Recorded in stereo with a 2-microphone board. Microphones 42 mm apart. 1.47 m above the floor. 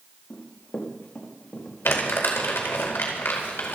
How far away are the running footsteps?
About 4.5 m.